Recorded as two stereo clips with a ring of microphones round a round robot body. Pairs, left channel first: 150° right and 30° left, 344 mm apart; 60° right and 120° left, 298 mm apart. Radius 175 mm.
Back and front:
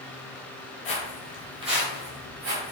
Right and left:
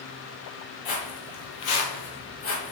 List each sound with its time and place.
0.8 s footsteps: 80° right, 0.9 m; by 2.7 s 10° right, 1.3 m